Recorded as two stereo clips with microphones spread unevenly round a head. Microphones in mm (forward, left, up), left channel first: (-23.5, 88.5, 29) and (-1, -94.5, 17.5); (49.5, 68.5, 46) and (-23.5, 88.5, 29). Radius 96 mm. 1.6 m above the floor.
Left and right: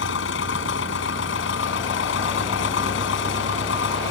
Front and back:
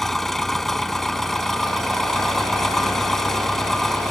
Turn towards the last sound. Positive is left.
turn(degrees=70)